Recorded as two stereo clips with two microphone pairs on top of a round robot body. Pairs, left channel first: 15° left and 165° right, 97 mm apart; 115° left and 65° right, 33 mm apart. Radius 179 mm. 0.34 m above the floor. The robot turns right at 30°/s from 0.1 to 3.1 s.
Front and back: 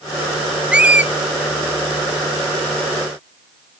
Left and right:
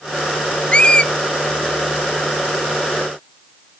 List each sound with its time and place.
0.7 s a squeak: 135° left, 0.9 m; by 1.1 s 145° left, 0.9 m